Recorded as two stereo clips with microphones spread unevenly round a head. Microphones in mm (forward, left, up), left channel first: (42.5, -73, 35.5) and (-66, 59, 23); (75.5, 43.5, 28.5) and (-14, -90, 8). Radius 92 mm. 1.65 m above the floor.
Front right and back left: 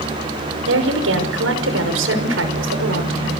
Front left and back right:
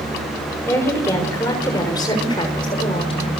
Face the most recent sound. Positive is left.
turn(degrees=115)